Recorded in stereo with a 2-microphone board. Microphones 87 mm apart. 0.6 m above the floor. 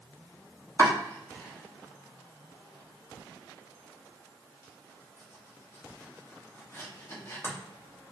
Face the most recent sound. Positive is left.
turn(degrees=30)  # may be behind; listen again after turning